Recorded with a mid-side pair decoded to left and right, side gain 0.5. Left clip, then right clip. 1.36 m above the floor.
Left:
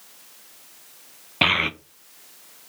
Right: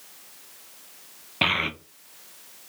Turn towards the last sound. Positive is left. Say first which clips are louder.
# left 4 dB
turn(degrees=25)